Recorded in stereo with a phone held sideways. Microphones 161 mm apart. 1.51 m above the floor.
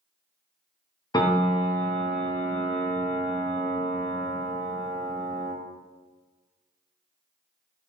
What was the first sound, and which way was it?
A piano, 25° left (ahead or behind).